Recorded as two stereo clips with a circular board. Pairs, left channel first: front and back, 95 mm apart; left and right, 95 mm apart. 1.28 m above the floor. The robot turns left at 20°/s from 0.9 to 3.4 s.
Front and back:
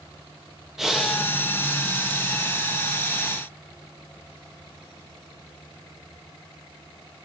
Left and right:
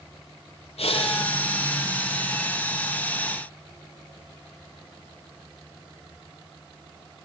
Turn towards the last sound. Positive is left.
turn(degrees=45)